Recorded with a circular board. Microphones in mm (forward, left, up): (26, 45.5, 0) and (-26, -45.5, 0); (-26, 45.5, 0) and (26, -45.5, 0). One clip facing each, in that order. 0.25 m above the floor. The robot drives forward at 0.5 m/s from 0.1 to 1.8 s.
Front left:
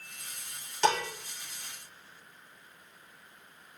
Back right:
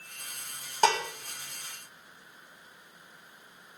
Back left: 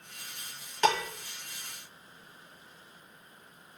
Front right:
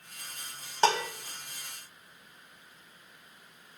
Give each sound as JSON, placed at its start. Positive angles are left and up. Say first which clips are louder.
{"t": 0.8, "sound": "dishes clattering", "louder": "back right 2 dB, front right 1 dB", "azimuth_deg": -105, "distance_m": 1.0}